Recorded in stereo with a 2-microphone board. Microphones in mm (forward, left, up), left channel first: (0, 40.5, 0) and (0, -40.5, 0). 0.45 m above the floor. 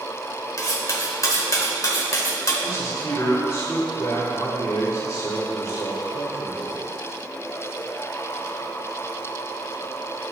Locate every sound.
0.6 s cutlery clinking: 40° left (ahead or behind), 0.9 m
2.6 s a man speaking: 45° left (ahead or behind), 1.8 m